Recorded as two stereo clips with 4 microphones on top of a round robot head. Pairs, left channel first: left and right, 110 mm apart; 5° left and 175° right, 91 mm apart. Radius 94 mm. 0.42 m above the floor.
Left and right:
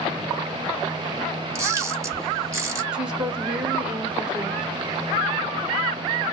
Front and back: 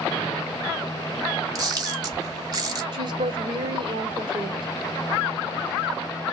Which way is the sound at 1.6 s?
145° right.